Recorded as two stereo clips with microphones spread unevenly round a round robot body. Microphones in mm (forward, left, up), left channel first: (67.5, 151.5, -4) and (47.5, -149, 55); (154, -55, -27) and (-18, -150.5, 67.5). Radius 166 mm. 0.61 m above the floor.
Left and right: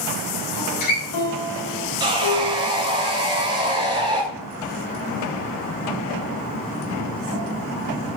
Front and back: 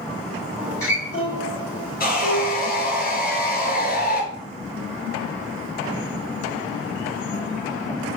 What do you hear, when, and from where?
0.6 s a guitar: 100° left, 3 m
2.0 s sawing: 20° right, 2.5 m